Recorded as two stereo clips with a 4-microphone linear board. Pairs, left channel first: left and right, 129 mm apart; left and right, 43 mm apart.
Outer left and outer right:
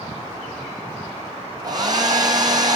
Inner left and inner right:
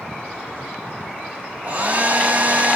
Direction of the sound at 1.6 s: 35° right (ahead or behind).